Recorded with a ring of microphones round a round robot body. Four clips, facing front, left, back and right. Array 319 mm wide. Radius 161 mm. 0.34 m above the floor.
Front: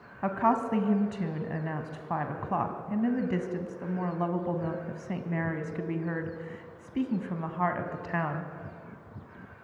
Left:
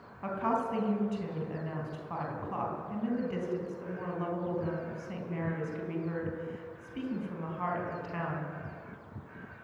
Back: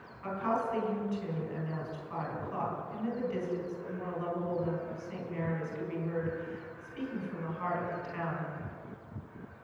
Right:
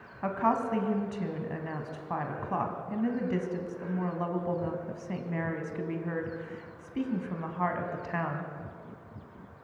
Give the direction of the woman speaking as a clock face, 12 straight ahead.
1 o'clock.